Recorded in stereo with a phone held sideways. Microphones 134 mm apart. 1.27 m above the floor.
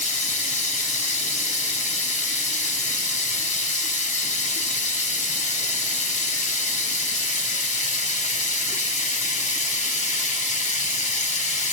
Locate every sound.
0.0 s running water: 65° left (ahead or behind), 1.4 m